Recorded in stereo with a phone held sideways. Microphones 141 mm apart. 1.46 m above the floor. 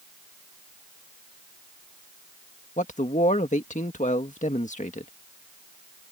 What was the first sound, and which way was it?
A man speaking, 60° left (ahead or behind).